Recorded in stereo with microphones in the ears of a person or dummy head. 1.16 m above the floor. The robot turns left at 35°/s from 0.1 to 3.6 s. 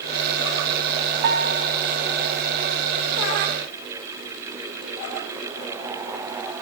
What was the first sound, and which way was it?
A piano, 60° right (ahead or behind).